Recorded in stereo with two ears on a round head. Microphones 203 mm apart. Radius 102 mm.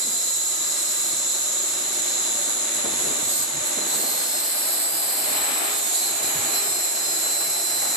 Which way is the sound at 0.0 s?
40° right (ahead or behind).